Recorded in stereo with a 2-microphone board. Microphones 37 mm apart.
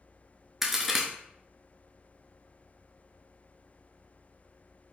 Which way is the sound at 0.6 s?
5° right (ahead or behind).